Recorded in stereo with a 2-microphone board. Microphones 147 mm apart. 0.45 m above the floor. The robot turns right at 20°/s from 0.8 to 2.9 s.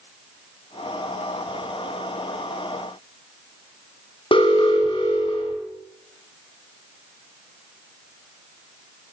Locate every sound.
4.3 s an alarm: 35° left (ahead or behind), 4 m